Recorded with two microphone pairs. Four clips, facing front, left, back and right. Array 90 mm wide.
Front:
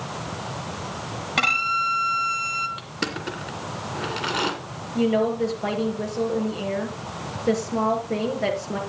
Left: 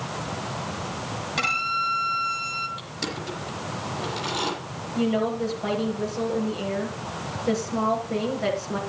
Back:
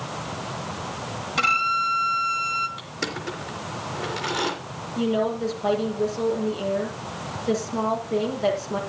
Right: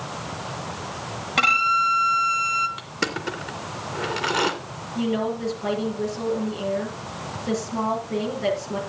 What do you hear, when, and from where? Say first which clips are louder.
1.4 s a violin: right 7 dB, back 1 dB; 35° right, 2.5 m
2.8 s crushing: right 4 dB, front 1 dB; 65° right, 2.5 m
5.0 s a woman speaking: left 1 dB, front 3 dB; 10° left, 6.5 m